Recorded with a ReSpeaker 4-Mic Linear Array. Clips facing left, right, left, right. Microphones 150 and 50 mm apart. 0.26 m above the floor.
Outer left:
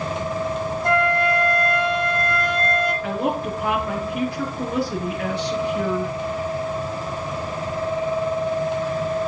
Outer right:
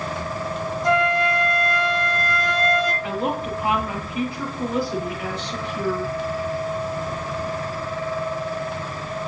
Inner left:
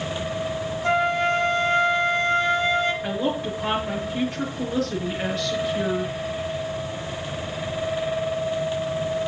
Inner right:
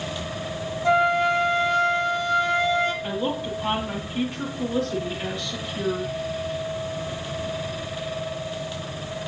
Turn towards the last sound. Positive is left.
turn(degrees=75)  # may be behind; listen again after turning